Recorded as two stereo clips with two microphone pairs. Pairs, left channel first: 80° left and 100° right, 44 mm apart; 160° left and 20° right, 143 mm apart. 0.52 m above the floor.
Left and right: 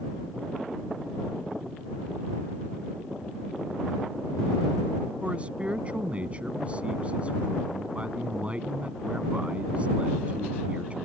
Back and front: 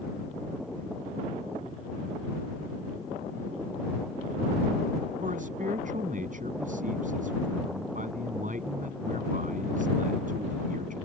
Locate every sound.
5.2 s a man speaking: 40° right